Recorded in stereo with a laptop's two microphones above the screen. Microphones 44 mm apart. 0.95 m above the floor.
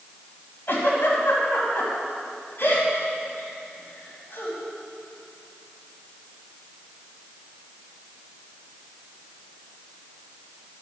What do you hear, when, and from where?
0.7 s a giggle: 60° left (ahead or behind), 3 m